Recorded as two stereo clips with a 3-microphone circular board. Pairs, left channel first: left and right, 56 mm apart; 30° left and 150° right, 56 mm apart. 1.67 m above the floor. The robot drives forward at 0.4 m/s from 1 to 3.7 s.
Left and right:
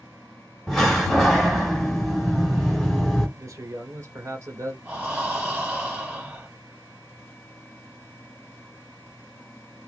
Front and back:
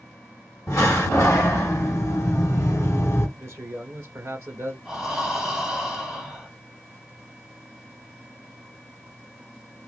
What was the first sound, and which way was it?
A door slam, 5° left.